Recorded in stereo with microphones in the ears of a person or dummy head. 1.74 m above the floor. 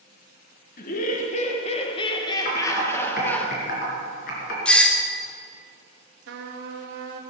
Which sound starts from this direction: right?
A trumpet, at 6.3 s.